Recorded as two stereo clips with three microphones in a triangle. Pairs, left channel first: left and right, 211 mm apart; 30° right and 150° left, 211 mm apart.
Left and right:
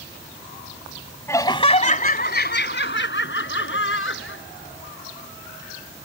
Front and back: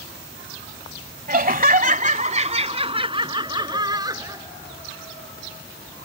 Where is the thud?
I don't hear a thud.